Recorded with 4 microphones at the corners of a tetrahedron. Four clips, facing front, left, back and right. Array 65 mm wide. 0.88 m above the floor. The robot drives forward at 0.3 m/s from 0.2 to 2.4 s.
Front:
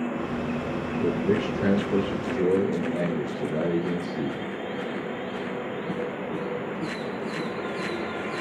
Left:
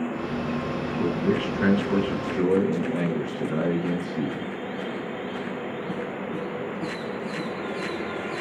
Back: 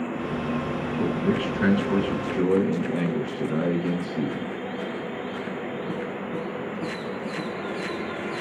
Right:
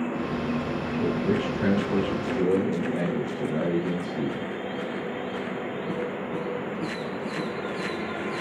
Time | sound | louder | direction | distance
1.0 | a man speaking | left 1 dB, front 1 dB | 145° left | 6 m